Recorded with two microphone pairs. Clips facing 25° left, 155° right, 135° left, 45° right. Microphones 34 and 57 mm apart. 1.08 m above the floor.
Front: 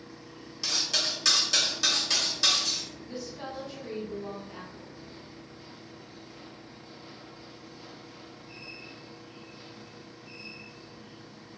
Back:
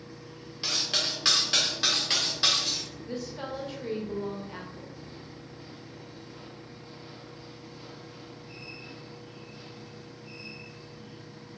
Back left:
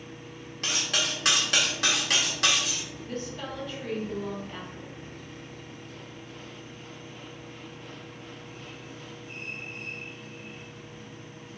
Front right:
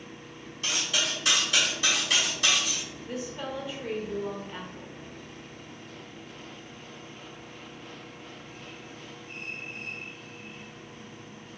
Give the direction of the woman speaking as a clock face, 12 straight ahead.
4 o'clock.